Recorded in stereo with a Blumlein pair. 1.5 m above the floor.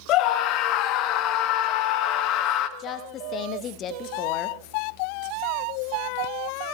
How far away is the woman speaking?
About 0.9 m.